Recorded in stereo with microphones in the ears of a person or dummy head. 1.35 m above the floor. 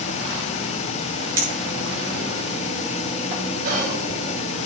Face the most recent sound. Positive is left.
turn(degrees=-45)  # may be behind; listen again after turning